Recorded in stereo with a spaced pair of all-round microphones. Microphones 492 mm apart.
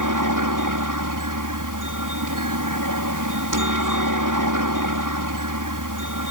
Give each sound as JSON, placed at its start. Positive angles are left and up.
{"t": 0.0, "sound": "a helicopter", "side_deg": -40}